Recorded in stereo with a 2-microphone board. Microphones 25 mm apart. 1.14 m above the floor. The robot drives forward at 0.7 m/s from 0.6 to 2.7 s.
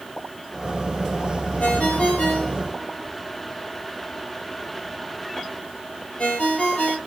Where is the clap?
No clap in this recording.